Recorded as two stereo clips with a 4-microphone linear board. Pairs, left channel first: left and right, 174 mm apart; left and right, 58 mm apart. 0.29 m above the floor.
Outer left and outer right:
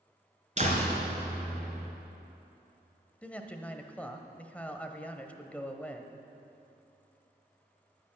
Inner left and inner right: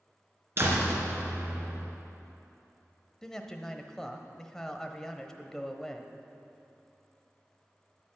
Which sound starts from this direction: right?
A door slam, at 0.6 s.